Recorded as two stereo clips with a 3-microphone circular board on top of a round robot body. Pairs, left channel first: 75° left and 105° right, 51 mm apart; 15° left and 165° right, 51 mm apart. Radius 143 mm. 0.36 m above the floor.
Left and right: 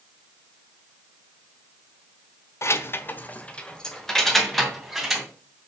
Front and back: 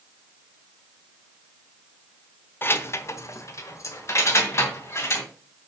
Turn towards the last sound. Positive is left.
turn(degrees=-20)